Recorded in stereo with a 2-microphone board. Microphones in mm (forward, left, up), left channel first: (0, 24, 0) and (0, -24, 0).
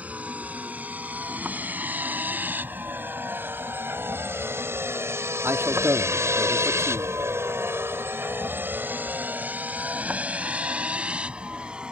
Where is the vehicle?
30° right (ahead or behind); by 11.9 s 25° right (ahead or behind).